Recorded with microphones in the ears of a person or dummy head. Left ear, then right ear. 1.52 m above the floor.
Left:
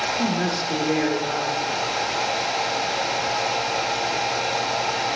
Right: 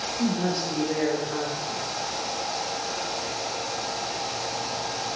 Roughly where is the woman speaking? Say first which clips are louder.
Left 3 dB; left.